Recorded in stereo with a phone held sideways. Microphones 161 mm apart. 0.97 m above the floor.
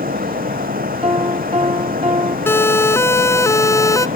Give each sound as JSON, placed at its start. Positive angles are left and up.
{"t": 0.0, "sound": "a fan", "side_deg": -65}
{"t": 1.0, "sound": "a piano", "side_deg": -35}
{"t": 2.5, "sound": "a siren", "side_deg": 15}